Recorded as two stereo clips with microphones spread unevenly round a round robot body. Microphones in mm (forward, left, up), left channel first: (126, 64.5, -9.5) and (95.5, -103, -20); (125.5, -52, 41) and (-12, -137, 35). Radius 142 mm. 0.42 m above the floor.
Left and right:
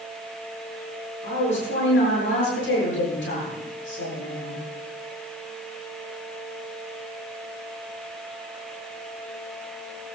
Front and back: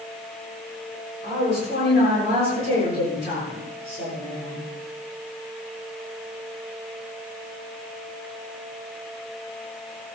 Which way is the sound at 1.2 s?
85° left.